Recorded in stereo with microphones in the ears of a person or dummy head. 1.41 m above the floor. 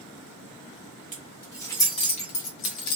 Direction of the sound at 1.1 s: 10° left (ahead or behind).